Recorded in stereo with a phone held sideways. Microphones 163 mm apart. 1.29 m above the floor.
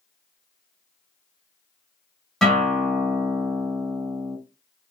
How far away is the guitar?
About 1.1 m.